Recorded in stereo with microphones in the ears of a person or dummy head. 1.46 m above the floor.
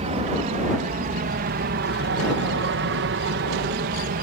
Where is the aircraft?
35° right (ahead or behind); by 4.2 s 50° right (ahead or behind).